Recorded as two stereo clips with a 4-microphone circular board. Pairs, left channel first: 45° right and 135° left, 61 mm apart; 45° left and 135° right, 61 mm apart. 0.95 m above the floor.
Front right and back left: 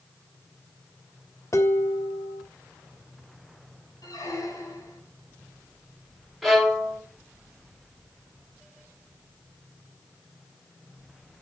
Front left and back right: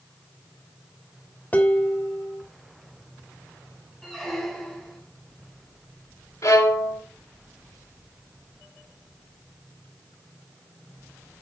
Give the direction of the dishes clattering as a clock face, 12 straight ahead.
1 o'clock.